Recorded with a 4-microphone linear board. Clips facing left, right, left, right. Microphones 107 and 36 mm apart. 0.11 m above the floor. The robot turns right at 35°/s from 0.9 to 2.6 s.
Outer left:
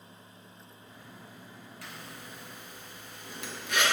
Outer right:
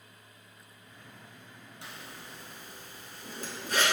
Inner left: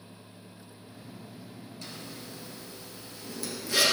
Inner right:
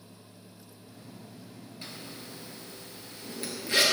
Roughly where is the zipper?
Right.